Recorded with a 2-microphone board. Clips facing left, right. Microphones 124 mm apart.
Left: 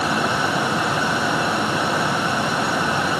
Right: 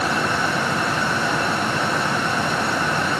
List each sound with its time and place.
Only background noise.